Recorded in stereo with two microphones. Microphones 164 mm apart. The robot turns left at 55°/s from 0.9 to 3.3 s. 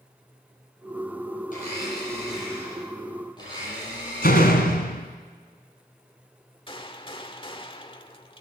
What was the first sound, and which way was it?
A blender, 130° left.